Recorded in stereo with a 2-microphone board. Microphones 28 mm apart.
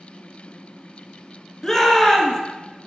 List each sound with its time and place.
1.6 s a shout: 10° left (ahead or behind), 1.7 m